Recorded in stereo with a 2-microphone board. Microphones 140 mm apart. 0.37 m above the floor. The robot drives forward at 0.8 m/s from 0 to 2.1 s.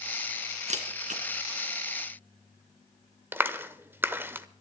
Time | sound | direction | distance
0.7 | a camera shutter | 55° right (ahead or behind) | 2.5 m
3.3 | a clap | 15° right (ahead or behind) | 0.8 m